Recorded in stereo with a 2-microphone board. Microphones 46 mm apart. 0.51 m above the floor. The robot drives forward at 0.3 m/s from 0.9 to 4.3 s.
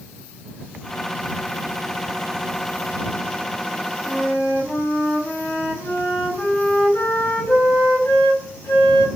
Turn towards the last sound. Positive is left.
turn(degrees=55)  # may be behind; listen again after turning